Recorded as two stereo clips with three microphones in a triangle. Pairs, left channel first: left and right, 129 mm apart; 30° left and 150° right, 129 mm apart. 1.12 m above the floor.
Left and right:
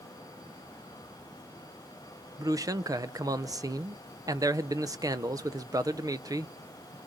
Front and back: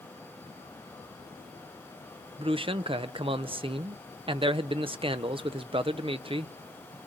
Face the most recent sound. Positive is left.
turn(degrees=-140)